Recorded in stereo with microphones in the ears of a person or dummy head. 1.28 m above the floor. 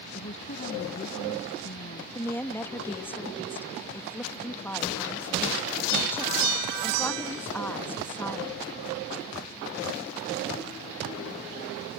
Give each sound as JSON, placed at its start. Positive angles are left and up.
{"t": 0.1, "sound": "a woman speaking", "side_deg": 35}
{"t": 2.1, "sound": "a woman speaking", "side_deg": 10}